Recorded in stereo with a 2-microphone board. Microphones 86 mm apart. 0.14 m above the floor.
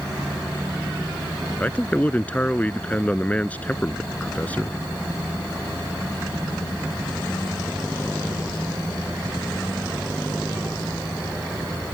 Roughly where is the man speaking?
Centre.